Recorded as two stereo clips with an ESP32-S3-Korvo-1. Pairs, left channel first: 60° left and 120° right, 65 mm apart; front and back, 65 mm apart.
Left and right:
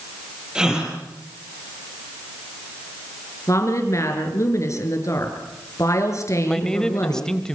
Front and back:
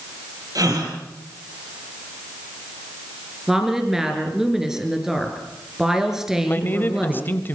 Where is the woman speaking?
95° left, 5 m.